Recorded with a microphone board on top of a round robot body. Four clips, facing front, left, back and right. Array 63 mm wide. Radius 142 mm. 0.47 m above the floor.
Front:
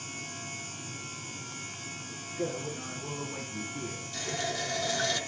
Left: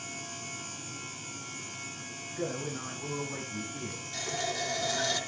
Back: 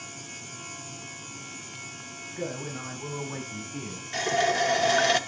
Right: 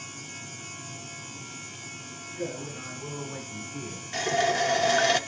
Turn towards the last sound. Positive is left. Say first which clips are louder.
# right 11 dB, back 11 dB
turn(degrees=-135)